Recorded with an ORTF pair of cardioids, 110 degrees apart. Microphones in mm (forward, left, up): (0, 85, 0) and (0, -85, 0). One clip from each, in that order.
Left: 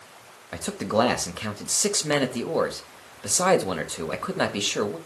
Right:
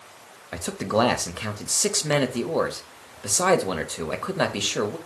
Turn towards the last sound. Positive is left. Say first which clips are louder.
# even
turn(degrees=0)